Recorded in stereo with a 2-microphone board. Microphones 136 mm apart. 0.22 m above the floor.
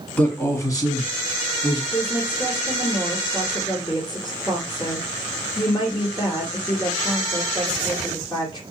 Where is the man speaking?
10° left (ahead or behind), 1.6 m; by 1.8 s 50° left (ahead or behind), 2.0 m.